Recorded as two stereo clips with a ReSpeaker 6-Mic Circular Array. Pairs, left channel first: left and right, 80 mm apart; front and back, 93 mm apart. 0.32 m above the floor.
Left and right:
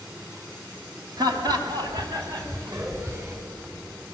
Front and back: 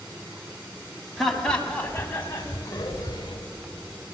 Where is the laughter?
85° right, 3 m; by 3.4 s 35° right, 3.5 m.